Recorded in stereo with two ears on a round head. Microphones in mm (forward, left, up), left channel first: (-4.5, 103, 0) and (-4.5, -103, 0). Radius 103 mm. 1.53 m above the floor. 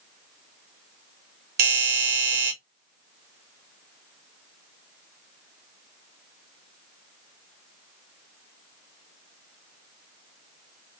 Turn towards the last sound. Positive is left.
turn(degrees=-40)  # may be behind; listen again after turning